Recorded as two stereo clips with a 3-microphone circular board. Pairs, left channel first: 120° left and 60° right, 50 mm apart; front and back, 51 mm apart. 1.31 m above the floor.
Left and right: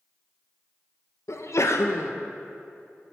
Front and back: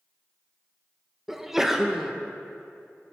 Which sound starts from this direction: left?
A sneeze, at 1.3 s.